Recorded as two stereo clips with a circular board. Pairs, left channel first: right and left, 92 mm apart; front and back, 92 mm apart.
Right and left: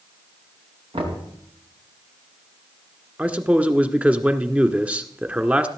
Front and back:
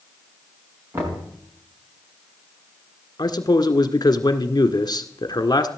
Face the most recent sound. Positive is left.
turn(degrees=20)